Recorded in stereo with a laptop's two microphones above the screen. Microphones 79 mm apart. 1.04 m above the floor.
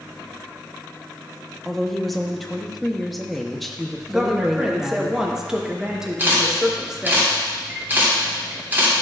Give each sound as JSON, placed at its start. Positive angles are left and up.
{"t": 1.6, "sound": "a woman speaking", "side_deg": 0, "distance_m": 1.1}
{"t": 4.1, "sound": "a woman speaking", "side_deg": -5, "distance_m": 1.1}
{"t": 6.2, "sound": "a camera shutter", "side_deg": -25, "distance_m": 3.0}